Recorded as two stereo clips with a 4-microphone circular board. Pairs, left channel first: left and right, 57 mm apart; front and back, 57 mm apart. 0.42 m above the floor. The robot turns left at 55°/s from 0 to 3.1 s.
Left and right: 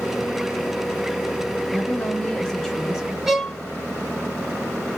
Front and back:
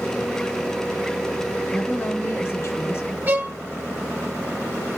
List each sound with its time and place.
1.7 s a woman speaking: 70° left, 2 m; by 3.2 s 10° right, 2 m
3.3 s a violin: 170° right, 1.0 m